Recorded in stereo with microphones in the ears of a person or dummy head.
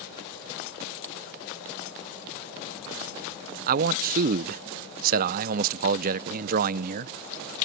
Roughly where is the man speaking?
Right.